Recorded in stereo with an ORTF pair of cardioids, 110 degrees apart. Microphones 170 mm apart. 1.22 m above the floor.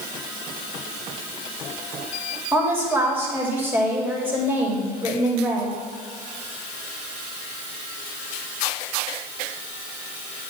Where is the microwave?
I don't hear a microwave.